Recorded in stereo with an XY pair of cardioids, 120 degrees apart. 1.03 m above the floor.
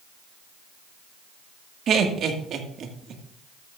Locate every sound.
1.9 s laughter: 55° right, 1.8 m